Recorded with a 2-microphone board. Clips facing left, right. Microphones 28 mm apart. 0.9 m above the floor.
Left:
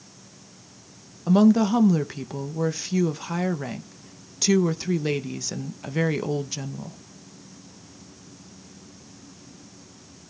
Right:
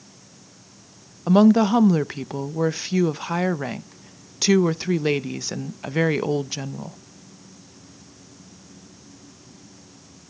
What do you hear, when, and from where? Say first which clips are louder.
1.3 s a woman speaking: right 3 dB; 20° right (ahead or behind), 0.6 m